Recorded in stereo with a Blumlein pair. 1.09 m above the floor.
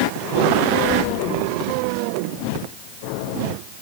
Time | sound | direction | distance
0.8 | keys jangling | 45° right | 3 m